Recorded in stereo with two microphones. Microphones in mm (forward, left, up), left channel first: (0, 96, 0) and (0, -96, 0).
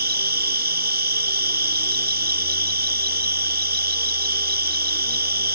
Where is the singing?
No singing in this recording.